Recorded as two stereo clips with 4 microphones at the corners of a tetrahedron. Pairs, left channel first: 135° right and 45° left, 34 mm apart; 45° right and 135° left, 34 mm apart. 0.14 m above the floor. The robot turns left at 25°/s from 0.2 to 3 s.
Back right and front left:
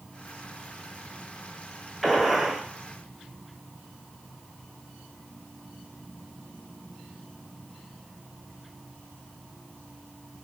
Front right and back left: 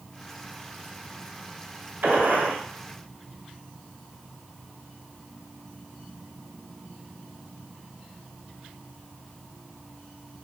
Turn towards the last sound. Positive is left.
turn(degrees=115)